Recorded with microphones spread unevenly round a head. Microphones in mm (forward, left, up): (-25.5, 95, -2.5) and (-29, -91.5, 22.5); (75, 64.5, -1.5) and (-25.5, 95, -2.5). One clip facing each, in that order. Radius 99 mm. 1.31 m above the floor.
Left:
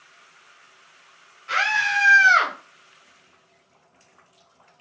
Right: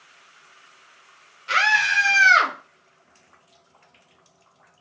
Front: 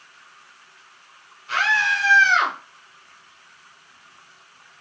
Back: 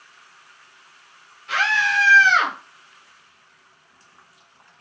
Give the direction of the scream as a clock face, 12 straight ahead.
4 o'clock.